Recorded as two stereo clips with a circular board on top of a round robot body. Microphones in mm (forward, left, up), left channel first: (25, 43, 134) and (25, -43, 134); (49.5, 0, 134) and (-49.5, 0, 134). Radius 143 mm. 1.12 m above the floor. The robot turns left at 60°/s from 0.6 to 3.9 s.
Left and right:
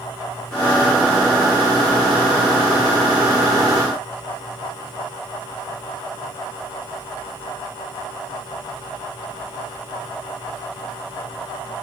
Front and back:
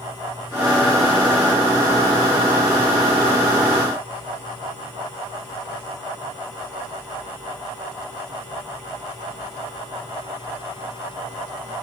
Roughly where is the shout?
No shout in this recording.